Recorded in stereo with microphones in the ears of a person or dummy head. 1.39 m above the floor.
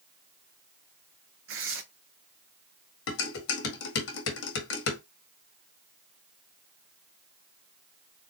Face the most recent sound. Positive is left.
turn(degrees=70)  # may be behind; listen again after turning